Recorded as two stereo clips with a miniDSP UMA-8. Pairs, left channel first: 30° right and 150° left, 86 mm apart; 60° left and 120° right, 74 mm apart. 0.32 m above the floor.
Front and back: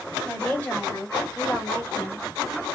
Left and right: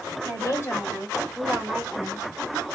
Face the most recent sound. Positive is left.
turn(degrees=-80)